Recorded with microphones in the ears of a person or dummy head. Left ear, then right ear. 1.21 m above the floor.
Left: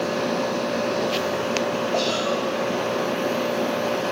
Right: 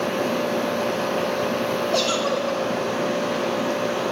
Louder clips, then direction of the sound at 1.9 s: Right 2 dB; 55° right (ahead or behind).